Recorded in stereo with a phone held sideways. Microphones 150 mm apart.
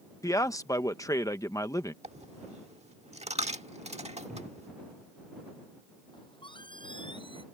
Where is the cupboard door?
60° right (ahead or behind).